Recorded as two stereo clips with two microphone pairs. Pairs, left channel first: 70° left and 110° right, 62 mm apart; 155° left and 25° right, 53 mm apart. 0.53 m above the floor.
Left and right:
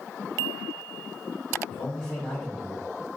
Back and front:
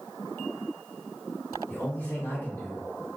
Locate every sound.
1.7 s a man speaking: 145° left, 1.7 m